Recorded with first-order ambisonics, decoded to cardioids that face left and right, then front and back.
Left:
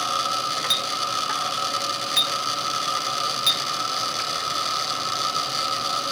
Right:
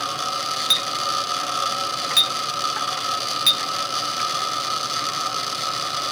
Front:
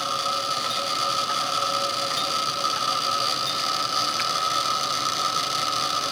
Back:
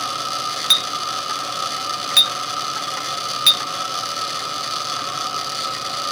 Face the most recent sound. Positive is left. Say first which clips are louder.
# right 5 dB, back 5 dB
turn(degrees=-165)